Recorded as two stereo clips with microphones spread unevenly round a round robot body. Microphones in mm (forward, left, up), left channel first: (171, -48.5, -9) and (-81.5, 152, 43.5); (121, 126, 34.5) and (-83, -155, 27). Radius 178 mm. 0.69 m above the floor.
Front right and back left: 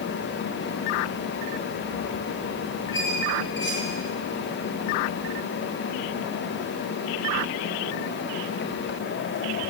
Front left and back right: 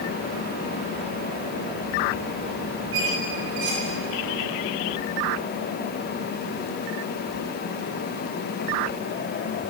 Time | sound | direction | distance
2.9 | a squeak | 100° right | 6.5 m